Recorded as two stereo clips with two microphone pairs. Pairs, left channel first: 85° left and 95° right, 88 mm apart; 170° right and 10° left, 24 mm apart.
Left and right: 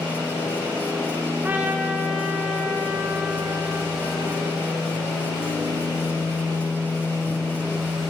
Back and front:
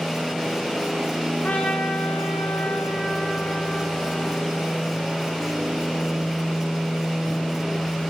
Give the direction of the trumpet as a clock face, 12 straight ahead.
6 o'clock.